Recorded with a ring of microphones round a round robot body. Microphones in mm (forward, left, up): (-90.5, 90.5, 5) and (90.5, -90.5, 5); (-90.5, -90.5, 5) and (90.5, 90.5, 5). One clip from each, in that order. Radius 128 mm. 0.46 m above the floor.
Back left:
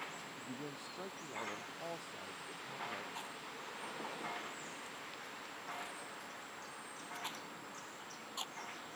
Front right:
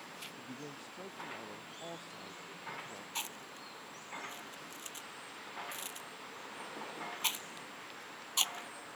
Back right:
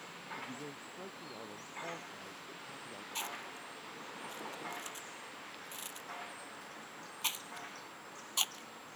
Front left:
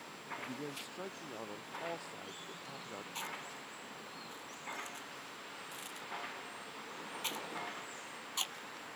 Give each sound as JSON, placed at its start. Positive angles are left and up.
{"t": 0.4, "sound": "a man speaking", "azimuth_deg": 55}
{"t": 3.1, "sound": "chewing", "azimuth_deg": -65}